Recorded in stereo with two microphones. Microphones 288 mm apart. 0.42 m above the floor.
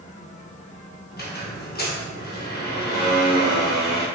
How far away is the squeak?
About 0.6 m.